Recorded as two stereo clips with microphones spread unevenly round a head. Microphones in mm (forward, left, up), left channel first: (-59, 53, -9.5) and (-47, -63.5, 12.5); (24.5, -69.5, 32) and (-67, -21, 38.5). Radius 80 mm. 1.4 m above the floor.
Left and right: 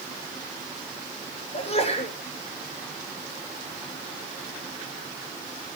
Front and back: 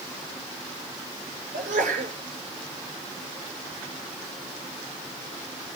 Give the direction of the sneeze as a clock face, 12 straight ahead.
8 o'clock.